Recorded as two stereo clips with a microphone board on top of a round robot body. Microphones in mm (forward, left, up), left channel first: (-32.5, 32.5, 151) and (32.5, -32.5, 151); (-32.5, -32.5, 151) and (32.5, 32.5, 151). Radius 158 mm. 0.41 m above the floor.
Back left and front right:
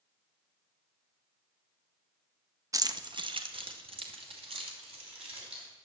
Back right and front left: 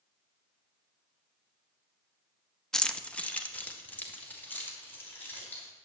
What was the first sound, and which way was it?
Keys jangling, 55° right.